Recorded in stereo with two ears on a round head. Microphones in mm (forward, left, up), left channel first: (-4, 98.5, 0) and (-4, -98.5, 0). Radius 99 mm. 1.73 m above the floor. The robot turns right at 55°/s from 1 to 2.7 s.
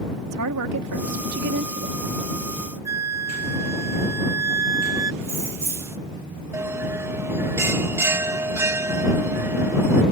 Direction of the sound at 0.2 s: 85° right.